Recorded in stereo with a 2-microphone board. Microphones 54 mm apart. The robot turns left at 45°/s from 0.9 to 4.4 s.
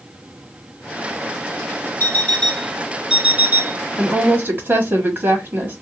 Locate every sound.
2.0 s an alarm clock: 35° left, 1.3 m; by 3.8 s 45° right, 1.3 m
4.0 s a woman speaking: 25° right (ahead or behind), 1.6 m; by 5.8 s 45° right (ahead or behind), 1.6 m